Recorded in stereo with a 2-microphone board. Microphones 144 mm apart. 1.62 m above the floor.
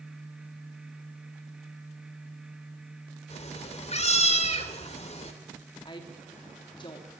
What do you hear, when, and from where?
3.3 s a cat meowing: 50° left (ahead or behind), 3 m
5.8 s a woman speaking: 35° left (ahead or behind), 3.5 m